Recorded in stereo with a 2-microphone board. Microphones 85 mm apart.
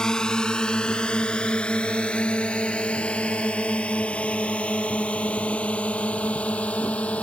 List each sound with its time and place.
0.0 s a drone: 10° left (ahead or behind); by 7.2 s 15° left (ahead or behind)